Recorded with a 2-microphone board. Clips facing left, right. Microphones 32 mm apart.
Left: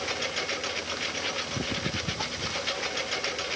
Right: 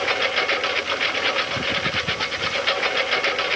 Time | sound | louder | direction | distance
0.0 | a lawn mower | right 10 dB | 40° right (ahead or behind) | ?